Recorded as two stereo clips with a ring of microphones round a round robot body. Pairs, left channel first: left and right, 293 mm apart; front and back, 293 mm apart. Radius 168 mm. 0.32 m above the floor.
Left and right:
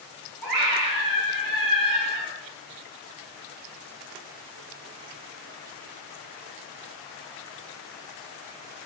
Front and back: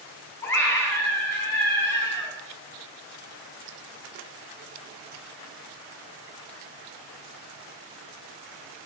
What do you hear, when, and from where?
0.4 s a scream: 80° right, 3 m